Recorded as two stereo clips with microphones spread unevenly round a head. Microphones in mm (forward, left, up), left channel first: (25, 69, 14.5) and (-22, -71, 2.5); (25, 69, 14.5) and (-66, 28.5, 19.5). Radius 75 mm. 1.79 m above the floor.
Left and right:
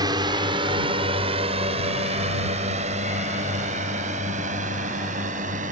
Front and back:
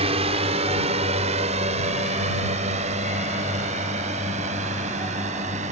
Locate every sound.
0.0 s a drone: 175° right; by 5.7 s 150° right